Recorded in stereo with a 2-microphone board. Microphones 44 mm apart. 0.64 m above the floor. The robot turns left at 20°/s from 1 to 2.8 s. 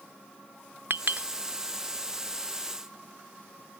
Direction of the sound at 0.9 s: 60° right (ahead or behind).